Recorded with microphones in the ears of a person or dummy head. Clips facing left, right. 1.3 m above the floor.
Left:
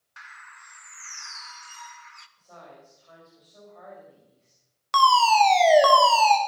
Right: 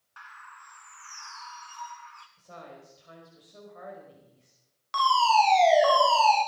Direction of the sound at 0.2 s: 25° left (ahead or behind).